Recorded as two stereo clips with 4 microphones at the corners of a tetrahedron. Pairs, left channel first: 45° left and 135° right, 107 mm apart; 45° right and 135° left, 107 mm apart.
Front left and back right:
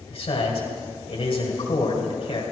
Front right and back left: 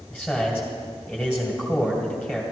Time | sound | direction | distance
0.1 | a man speaking | 45° left | 2.5 m